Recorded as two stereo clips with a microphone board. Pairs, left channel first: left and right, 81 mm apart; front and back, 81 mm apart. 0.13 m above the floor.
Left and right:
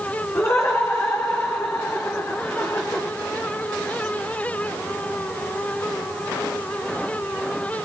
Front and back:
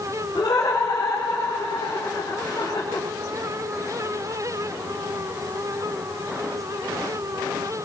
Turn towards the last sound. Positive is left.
turn(degrees=40)